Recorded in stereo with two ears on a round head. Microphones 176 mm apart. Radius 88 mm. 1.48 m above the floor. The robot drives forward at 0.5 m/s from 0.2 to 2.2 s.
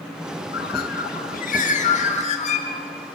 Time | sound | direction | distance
0.5 | a bird | 55° left (ahead or behind) | 1.3 m